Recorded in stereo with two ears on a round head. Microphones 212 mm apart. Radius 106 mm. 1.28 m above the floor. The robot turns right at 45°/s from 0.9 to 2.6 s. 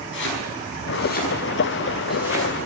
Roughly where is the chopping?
Left.